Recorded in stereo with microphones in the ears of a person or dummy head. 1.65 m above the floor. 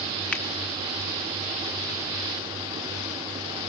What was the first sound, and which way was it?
A finger snap, 5° left (ahead or behind).